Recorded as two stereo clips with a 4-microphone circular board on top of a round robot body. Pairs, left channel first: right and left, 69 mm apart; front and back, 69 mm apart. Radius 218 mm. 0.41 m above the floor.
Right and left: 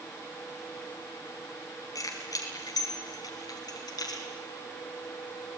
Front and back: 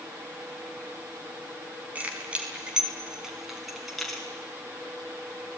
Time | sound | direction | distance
1.9 | keys jangling | 115° right | 4.5 m